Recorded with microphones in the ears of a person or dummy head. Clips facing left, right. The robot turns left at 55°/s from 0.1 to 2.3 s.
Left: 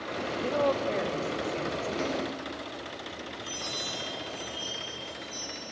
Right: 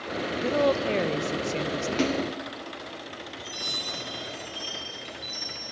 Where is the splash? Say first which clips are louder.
Right 7 dB; 40° right (ahead or behind), 0.7 m; by 2.3 s 30° right (ahead or behind), 0.7 m.